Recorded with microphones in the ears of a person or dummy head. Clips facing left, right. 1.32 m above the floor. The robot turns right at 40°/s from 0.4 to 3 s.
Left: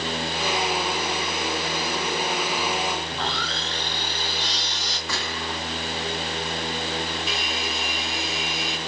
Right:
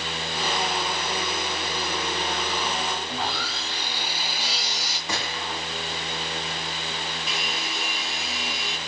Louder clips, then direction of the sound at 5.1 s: Even; 15° right (ahead or behind).